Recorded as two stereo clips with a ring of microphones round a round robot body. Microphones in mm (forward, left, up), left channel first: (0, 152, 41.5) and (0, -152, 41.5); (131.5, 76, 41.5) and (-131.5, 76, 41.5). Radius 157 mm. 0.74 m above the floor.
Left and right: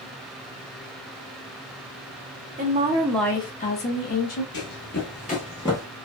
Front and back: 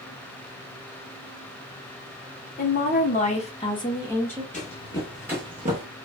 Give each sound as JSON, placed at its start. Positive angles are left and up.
{"t": 2.6, "sound": "a woman speaking", "azimuth_deg": -40, "distance_m": 0.8}
{"t": 4.5, "sound": "running footsteps", "azimuth_deg": 50, "distance_m": 0.9}